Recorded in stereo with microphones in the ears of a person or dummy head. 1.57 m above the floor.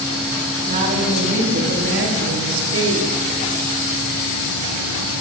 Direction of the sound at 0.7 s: 40° right (ahead or behind).